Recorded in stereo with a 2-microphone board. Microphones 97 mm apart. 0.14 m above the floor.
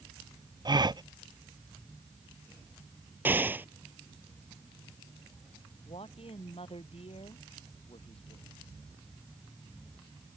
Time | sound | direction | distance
0.7 | a gasp | 50° right (ahead or behind) | ?
3.2 | an explosion | 20° right (ahead or behind) | ?
5.8 | a man speaking | 80° left | ?